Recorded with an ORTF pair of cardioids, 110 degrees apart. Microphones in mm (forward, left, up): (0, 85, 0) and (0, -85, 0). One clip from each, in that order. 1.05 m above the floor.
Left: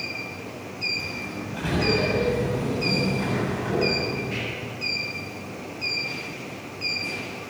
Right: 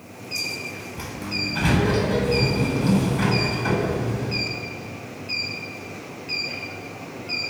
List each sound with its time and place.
1.0 s a sliding door: 60° right, 8.5 m